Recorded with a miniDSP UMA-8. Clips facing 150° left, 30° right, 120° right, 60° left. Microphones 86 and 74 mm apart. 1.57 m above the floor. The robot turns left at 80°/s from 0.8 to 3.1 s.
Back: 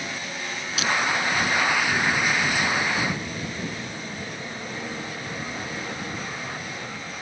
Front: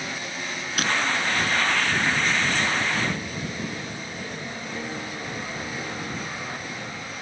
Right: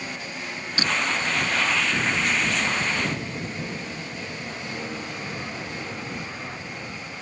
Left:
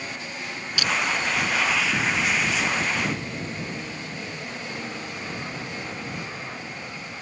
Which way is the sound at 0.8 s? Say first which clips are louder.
Even, right 1 dB; 65° right.